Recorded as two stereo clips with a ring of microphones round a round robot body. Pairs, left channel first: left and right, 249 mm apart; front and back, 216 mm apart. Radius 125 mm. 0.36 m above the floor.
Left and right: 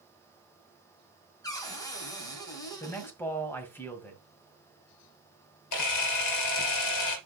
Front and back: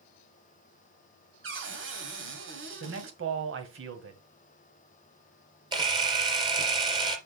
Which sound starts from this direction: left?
A camera shutter, at 5.7 s.